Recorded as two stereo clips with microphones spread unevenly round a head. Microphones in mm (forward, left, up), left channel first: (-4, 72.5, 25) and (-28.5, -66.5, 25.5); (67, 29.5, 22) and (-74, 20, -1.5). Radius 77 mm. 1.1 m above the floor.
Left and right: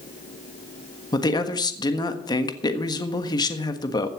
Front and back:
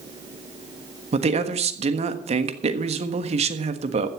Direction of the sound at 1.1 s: 140° left.